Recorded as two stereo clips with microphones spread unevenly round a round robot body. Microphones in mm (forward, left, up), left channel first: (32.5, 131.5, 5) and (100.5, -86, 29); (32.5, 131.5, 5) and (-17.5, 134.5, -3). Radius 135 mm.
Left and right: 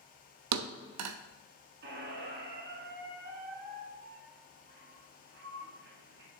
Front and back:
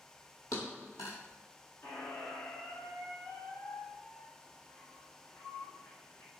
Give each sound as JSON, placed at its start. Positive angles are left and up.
{"t": 0.5, "sound": "a thud", "azimuth_deg": -65, "distance_m": 0.6}
{"t": 1.8, "sound": "a squeak", "azimuth_deg": -35, "distance_m": 1.4}